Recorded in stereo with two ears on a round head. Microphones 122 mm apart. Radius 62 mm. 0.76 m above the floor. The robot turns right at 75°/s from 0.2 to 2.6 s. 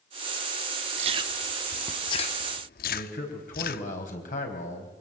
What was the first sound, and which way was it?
Chewing, 50° right (ahead or behind).